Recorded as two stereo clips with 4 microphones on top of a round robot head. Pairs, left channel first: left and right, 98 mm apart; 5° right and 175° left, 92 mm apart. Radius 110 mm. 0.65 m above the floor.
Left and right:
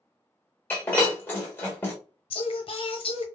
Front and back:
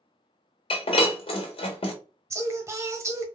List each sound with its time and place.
0.7 s breaking glass: 20° left, 1.4 m
2.3 s singing: 115° left, 0.9 m